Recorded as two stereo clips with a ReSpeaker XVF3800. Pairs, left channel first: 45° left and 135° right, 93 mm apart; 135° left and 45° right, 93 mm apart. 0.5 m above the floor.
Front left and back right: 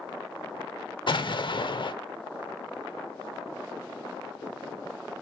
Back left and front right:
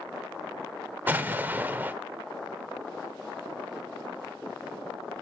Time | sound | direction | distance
1.1 | an explosion | 25° left | 0.8 m